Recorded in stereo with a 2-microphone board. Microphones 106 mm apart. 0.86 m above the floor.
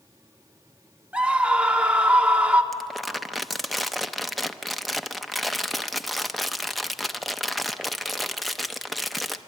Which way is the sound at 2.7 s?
Centre (ahead or behind).